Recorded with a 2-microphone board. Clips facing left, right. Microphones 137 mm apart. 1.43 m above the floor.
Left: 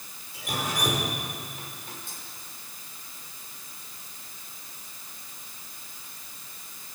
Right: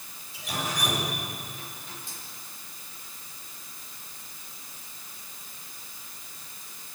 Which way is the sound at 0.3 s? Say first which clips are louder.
Left 1 dB; 55° left (ahead or behind).